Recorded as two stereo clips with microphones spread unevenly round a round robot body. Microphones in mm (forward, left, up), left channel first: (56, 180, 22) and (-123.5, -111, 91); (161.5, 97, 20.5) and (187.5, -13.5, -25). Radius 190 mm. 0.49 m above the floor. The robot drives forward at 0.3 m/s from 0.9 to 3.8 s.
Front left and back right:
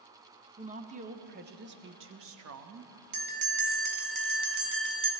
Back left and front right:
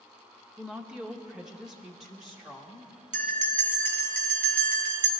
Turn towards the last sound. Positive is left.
turn(degrees=-90)